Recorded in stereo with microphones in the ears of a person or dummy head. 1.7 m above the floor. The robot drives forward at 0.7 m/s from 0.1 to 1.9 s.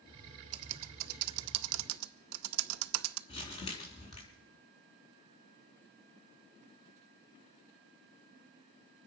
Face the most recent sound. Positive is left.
turn(degrees=35)  # may be behind; listen again after turning